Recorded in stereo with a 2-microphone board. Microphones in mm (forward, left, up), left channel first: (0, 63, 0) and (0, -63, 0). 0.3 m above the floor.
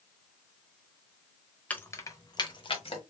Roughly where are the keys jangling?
Centre.